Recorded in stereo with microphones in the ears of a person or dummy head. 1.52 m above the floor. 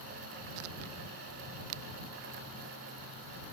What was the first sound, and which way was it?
Only background noise.